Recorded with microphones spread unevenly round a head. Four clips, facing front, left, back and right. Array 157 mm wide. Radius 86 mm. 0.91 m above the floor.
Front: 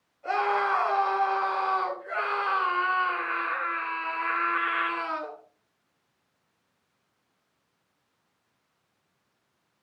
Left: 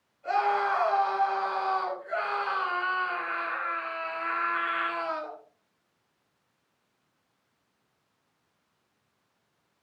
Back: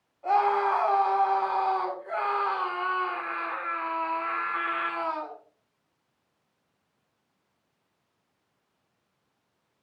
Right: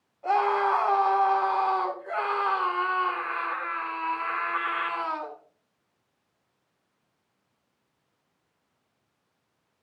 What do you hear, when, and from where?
0.2 s a scream: 125° right, 9.5 m